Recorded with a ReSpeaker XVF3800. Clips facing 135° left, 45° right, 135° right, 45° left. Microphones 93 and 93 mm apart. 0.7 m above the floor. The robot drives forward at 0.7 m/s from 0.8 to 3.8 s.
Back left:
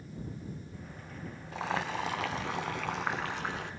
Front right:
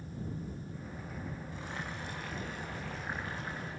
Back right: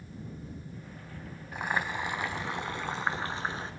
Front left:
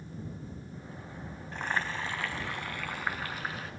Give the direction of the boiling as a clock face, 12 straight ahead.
7 o'clock.